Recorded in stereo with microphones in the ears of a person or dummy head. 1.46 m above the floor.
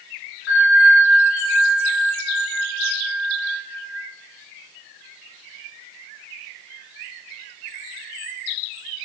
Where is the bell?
75° left (ahead or behind), 5 m.